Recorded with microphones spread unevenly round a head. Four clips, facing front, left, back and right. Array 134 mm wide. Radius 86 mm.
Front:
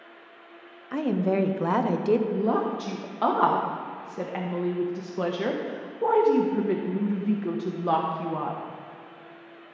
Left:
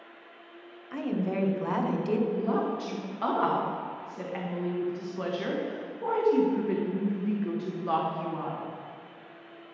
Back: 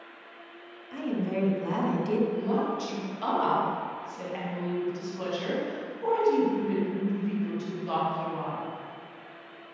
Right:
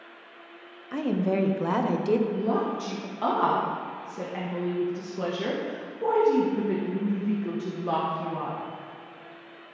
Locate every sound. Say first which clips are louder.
0.9 s a woman speaking: right 4 dB, front 6 dB; 35° right, 0.8 m
2.3 s a woman speaking: right 2 dB, front 3 dB; 10° right, 1.1 m